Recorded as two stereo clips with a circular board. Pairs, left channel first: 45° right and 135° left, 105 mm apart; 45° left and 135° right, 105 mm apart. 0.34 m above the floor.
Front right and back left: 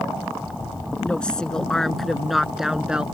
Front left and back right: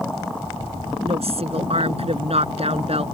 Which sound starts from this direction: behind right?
A woman speaking, at 1.0 s.